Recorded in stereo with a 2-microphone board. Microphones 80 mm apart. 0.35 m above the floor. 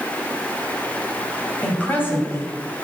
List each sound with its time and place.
1.6 s a woman speaking: 20° left (ahead or behind), 2.5 m; by 2.9 s 40° left (ahead or behind), 2.5 m